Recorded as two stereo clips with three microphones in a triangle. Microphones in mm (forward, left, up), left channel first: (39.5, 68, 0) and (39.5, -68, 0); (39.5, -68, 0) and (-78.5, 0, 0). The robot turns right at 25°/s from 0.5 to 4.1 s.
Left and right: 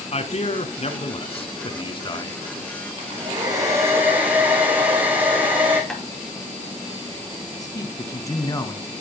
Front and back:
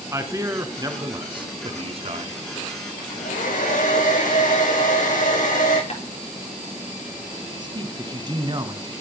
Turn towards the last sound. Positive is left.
turn(degrees=130)